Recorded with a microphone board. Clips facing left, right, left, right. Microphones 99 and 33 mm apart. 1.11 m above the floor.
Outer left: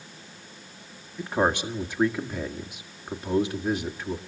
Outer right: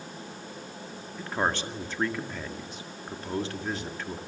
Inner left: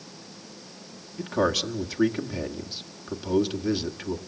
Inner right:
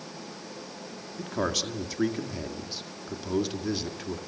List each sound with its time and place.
1.2 s a man speaking: 10° left (ahead or behind), 1.9 m